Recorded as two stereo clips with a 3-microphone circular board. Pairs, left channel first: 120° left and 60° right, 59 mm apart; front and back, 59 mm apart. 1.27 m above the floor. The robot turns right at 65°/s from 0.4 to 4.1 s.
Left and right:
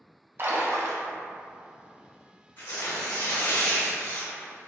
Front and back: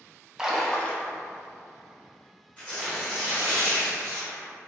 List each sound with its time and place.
0.4 s a splash: 100° right, 0.5 m; by 1.1 s 55° right, 0.5 m
2.6 s tearing paper: 65° left, 1.8 m; by 4.5 s 165° left, 1.8 m